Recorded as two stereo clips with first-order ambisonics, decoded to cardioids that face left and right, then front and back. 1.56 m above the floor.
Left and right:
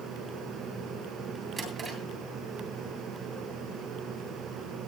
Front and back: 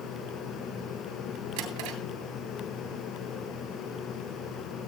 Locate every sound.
1.6 s a drawer: 160° right, 7.5 m